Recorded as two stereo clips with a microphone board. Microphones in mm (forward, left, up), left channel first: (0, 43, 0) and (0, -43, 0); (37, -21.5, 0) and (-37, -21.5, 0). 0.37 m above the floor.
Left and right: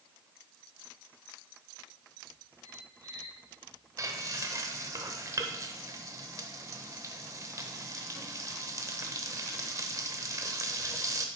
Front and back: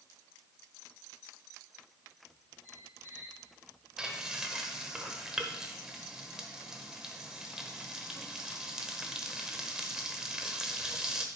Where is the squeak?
45° right, 2 m.